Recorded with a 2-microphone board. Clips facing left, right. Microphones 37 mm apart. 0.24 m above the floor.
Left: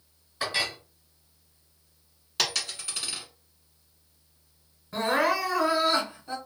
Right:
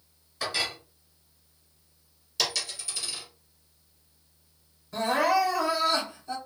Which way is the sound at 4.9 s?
25° left (ahead or behind).